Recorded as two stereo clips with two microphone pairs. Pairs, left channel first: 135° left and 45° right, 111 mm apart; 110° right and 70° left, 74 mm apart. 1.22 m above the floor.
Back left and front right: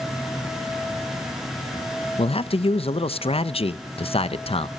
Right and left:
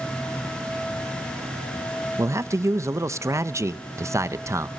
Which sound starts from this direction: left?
A man speaking, at 2.2 s.